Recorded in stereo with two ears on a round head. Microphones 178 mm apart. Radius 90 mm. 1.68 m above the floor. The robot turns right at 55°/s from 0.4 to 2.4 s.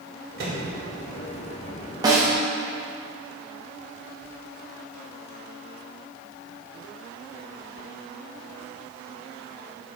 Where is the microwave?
50° right (ahead or behind), 1.6 m; by 0.6 s 40° right (ahead or behind), 1.6 m.